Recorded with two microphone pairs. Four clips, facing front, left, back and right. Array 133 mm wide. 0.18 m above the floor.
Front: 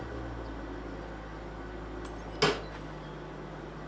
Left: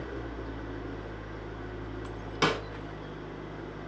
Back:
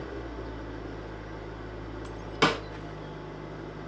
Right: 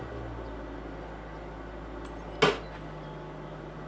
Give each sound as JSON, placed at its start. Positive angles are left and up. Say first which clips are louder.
{"t": 0.0, "sound": "an engine running", "louder": "left 1 dB, back 2 dB", "azimuth_deg": 130, "distance_m": 1.7}
{"t": 2.4, "sound": "a snare drum", "louder": "right 3 dB, back 3 dB", "azimuth_deg": 175, "distance_m": 1.1}